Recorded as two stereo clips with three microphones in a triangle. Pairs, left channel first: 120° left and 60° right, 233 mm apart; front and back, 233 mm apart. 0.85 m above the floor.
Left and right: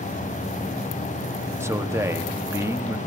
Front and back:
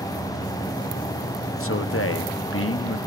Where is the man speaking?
15° left, 0.9 m.